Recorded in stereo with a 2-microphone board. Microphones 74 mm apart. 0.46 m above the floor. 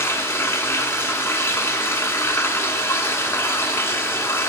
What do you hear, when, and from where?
0.0 s running water: 35° left (ahead or behind), 0.8 m